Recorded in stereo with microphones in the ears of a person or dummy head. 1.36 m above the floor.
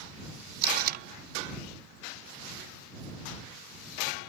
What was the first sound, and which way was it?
Tape being pulled, 55° right (ahead or behind).